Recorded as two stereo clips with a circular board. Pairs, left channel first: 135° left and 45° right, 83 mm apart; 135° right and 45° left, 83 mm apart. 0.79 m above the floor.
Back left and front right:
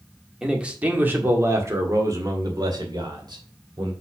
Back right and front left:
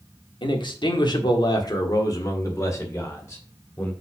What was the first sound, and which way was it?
A man speaking, 125° right.